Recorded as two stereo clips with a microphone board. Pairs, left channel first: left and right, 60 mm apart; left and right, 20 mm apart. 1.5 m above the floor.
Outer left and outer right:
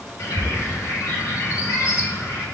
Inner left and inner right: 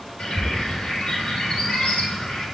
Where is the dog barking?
No dog barking in this recording.